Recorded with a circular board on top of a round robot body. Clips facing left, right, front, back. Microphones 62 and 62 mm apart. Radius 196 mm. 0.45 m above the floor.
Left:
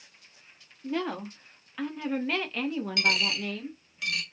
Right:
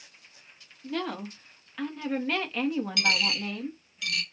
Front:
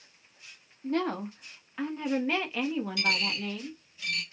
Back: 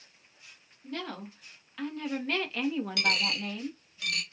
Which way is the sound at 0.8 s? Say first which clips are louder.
Left 1 dB, front 9 dB; 20° left.